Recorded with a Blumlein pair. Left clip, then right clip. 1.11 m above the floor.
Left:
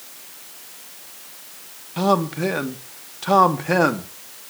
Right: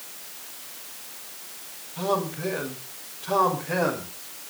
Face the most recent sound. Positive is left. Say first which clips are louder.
# left 7 dB
turn(degrees=55)